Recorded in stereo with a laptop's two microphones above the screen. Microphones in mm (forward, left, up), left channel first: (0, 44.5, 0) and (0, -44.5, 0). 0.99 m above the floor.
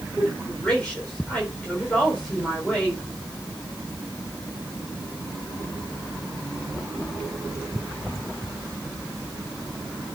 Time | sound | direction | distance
0.2 | a woman speaking | 10° left (ahead or behind) | 4 m